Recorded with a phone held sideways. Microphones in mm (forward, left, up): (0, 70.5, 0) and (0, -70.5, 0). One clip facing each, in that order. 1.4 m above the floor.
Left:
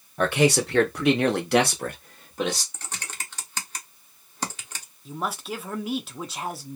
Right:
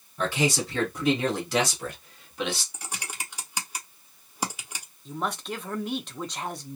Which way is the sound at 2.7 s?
10° right (ahead or behind).